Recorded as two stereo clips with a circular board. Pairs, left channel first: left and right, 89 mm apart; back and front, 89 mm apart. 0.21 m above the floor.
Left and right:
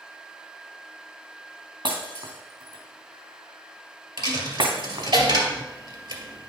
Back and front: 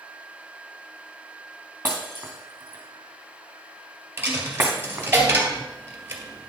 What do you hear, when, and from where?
1.9 s breaking glass: 65° right, 2.5 m
4.2 s a dropped coin: 65° right, 2 m